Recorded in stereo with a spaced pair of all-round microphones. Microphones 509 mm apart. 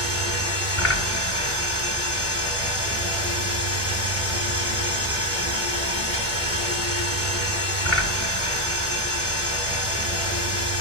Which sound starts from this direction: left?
A machine running, at 0.0 s.